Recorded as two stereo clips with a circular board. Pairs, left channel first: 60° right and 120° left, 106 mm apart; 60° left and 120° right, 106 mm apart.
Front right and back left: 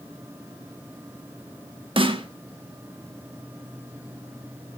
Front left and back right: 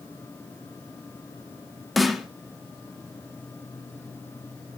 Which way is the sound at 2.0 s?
150° left.